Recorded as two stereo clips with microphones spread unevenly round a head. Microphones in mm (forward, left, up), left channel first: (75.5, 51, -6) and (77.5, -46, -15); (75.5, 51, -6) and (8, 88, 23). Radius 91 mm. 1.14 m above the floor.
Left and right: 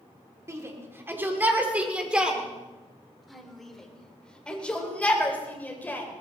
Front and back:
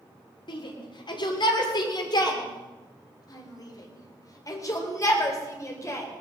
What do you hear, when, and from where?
0.5 s a shout: 30° right, 3.5 m; by 6.1 s 20° left, 5.5 m